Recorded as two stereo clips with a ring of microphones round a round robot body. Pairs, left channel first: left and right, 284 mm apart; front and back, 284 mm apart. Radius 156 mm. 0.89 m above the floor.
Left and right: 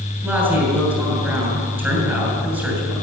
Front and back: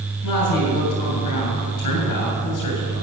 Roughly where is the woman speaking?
Ahead.